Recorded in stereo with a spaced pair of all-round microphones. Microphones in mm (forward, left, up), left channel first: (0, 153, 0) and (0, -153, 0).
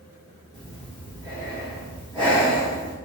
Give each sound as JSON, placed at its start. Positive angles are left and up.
{"t": 0.5, "sound": "breathing", "side_deg": -15, "distance_m": 1.2}